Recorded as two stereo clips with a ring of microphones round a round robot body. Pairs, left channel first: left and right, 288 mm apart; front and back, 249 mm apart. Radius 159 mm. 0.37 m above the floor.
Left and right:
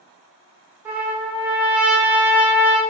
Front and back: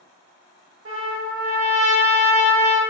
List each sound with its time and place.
0.8 s a trumpet: 170° right, 1.0 m